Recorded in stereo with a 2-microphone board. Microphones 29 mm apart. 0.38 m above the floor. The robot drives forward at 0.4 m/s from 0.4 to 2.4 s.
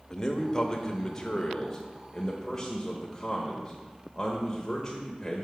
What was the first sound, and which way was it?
A man speaking, 20° left (ahead or behind).